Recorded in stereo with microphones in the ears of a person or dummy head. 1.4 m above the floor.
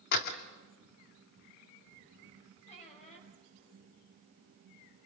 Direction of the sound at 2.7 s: 35° left (ahead or behind).